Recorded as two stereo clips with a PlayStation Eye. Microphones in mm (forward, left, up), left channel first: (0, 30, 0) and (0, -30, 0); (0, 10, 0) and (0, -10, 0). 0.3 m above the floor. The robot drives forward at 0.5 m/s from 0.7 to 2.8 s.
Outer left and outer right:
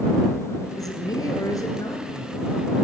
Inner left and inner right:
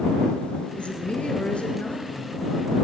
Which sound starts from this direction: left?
A man speaking, at 0.8 s.